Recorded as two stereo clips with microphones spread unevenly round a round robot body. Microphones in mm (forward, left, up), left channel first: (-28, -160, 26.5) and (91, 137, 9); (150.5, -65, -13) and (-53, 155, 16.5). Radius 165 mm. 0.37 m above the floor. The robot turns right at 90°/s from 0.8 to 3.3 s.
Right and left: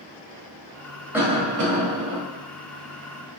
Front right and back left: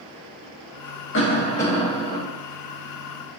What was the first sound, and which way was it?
A cough, 15° right.